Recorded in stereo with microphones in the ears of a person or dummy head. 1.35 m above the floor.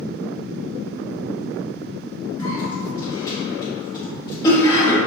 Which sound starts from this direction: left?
A cough, at 2.4 s.